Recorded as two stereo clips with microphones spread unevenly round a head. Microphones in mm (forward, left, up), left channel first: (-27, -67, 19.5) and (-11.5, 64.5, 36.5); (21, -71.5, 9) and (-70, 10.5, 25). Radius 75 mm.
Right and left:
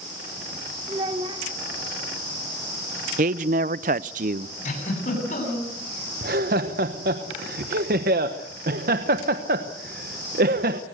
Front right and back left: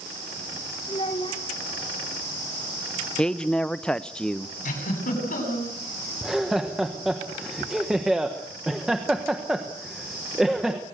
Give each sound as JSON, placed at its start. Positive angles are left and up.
{"t": 0.9, "sound": "a child speaking", "azimuth_deg": 25, "distance_m": 2.5}
{"t": 3.2, "sound": "a man speaking", "azimuth_deg": 45, "distance_m": 0.5}
{"t": 4.7, "sound": "a giggle", "azimuth_deg": -55, "distance_m": 8.0}
{"t": 6.2, "sound": "laughter", "azimuth_deg": 55, "distance_m": 1.1}